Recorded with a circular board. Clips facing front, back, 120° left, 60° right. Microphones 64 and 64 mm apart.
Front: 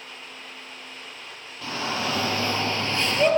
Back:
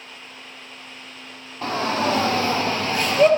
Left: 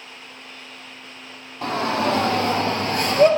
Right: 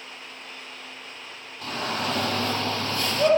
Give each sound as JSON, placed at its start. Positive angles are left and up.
{"t": 1.6, "sound": "a shout", "azimuth_deg": 130, "distance_m": 3.5}